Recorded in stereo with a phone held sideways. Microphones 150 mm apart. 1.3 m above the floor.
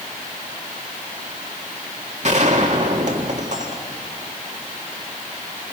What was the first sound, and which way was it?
A gunshot, 50° right (ahead or behind).